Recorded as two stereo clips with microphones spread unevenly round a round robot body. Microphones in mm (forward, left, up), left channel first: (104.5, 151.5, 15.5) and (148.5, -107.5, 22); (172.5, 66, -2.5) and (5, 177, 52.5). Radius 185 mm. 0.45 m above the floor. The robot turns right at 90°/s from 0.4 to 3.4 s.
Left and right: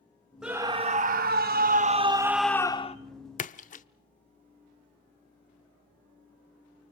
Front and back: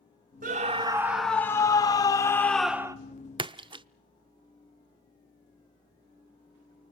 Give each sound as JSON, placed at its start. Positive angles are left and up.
{"t": 0.4, "sound": "a scream", "azimuth_deg": -170, "distance_m": 0.8}
{"t": 3.4, "sound": "a splash", "azimuth_deg": 70, "distance_m": 0.6}